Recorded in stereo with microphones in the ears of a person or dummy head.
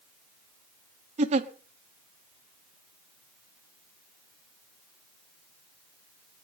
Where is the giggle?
45° right (ahead or behind), 1.1 m.